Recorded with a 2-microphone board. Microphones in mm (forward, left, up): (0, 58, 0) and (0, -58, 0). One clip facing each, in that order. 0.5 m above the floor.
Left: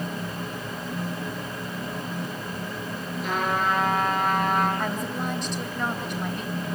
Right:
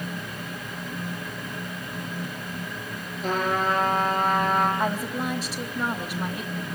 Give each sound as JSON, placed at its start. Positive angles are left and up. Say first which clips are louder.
{"t": 3.2, "sound": "a trumpet", "louder": "right 1 dB", "side_deg": -40, "distance_m": 6.5}
{"t": 4.8, "sound": "a woman speaking", "louder": "right 2 dB", "side_deg": -5, "distance_m": 3.0}